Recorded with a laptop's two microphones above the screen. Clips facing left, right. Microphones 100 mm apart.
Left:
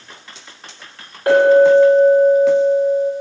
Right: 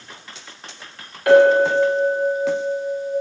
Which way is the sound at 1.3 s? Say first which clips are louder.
Left 3 dB; 35° left (ahead or behind).